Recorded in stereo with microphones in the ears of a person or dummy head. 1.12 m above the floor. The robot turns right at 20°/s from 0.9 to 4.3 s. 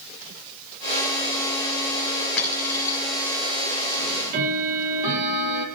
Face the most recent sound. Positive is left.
turn(degrees=-55)  # may be behind; listen again after turning